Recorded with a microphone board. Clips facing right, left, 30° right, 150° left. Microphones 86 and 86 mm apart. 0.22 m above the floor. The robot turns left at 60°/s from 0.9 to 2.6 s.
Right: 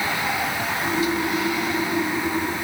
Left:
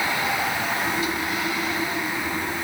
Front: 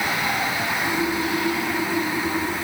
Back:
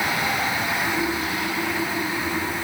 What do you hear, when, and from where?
Only background noise.